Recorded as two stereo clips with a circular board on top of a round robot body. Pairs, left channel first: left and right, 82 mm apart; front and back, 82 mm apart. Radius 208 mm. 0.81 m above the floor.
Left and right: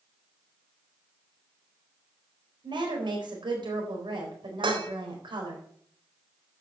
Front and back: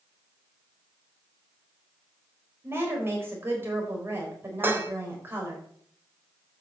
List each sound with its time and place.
2.6 s a woman speaking: 115° right, 4 m
4.6 s dishes clattering: 115° right, 1.4 m